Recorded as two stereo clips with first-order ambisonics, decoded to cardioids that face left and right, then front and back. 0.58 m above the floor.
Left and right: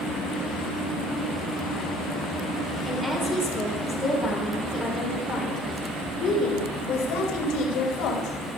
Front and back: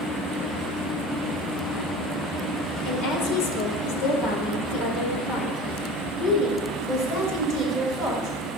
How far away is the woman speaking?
About 2 m.